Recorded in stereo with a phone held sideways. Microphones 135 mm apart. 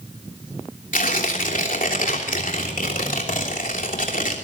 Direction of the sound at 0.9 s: 85° left.